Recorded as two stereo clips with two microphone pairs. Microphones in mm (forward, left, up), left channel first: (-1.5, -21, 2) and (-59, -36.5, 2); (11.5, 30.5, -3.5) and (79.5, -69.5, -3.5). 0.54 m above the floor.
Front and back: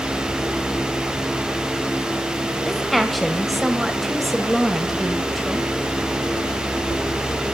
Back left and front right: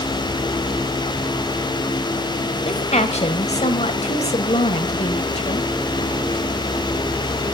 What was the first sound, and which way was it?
A woman speaking, 105° left.